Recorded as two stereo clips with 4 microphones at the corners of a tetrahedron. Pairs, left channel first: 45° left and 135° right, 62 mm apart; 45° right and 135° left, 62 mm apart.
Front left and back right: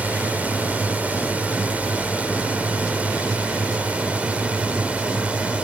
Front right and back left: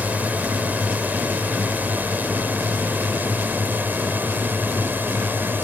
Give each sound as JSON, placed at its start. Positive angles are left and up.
{"t": 0.0, "sound": "a drone", "azimuth_deg": 175}